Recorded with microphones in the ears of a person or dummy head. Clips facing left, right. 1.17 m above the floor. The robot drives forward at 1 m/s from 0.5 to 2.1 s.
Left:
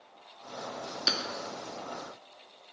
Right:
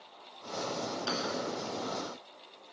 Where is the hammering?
35° left (ahead or behind), 2 m.